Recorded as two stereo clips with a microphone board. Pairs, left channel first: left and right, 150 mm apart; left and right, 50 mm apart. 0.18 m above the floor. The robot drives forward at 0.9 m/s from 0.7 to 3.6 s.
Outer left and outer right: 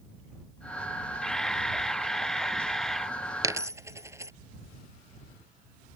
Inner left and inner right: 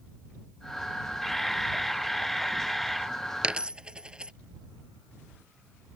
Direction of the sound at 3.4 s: 20° right (ahead or behind).